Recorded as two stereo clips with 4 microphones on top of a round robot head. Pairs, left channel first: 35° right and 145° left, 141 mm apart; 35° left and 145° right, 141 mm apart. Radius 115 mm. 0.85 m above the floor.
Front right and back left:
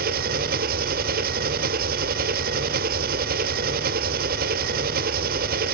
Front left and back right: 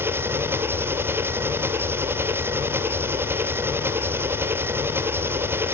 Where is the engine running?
140° left, 1.2 m.